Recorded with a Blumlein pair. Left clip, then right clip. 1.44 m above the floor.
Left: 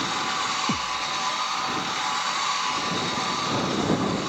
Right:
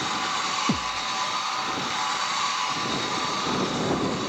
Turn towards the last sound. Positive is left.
turn(degrees=-10)